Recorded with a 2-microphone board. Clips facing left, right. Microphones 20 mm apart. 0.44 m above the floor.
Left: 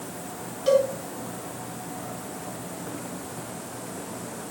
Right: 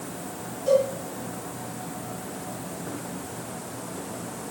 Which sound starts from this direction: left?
A cowbell, at 0.7 s.